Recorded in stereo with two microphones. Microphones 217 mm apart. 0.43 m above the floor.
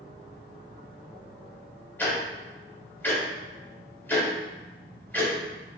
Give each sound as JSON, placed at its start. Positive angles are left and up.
{"t": 2.0, "sound": "ticking", "side_deg": 10, "distance_m": 0.9}